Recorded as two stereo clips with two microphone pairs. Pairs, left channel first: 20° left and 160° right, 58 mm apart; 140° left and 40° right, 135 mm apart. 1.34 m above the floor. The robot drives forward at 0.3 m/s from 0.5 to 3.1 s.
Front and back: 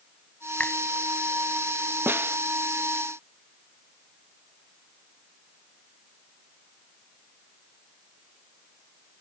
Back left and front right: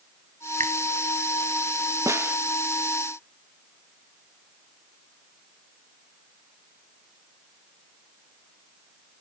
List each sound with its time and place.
0.6 s a finger snap: 45° right
2.1 s a snare drum: 110° right; by 2.4 s 115° right